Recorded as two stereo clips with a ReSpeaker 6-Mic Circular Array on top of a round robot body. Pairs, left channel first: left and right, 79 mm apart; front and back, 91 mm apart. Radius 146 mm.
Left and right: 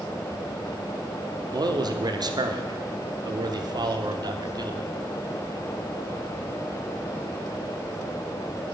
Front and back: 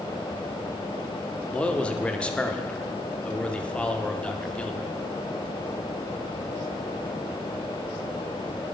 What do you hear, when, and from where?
1.5 s a man speaking: 75° right, 1.1 m